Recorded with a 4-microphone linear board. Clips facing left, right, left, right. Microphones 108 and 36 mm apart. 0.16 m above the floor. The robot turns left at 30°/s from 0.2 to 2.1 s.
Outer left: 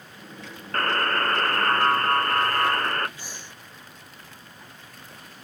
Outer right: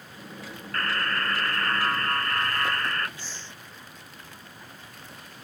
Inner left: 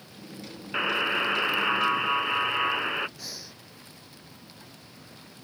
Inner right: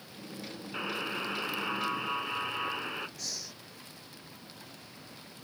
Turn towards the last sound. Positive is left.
turn(degrees=15)  # may be behind; listen again after turning